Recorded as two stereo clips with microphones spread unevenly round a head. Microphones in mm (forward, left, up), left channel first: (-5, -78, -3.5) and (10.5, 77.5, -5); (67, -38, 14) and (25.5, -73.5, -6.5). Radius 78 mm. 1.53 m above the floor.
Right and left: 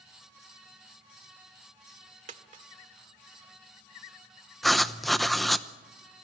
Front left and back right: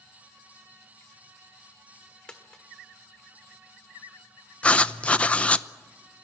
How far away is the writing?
About 0.8 m.